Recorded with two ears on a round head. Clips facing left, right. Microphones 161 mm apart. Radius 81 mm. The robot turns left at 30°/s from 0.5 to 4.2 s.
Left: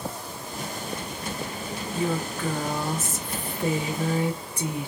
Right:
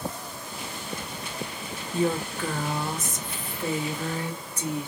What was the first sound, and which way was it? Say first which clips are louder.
A woman speaking: right 2 dB; 155° right.